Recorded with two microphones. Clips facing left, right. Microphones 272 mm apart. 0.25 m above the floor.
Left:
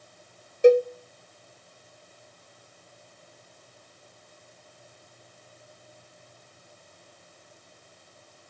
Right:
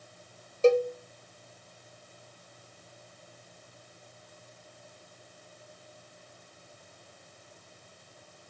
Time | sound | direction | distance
0.6 | a cowbell | 15° left (ahead or behind) | 0.6 m